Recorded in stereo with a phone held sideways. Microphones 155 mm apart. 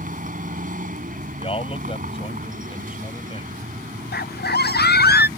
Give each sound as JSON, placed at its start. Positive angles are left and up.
{"t": 0.0, "sound": "a vehicle", "side_deg": -60}
{"t": 1.4, "sound": "a man speaking", "side_deg": 35}
{"t": 4.1, "sound": "a scream", "side_deg": 80}